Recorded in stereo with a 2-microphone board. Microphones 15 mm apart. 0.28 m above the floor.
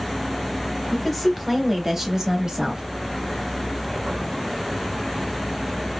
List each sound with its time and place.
0.9 s a woman speaking: 10° left (ahead or behind), 1.1 m; by 2.8 s 40° right (ahead or behind), 1.2 m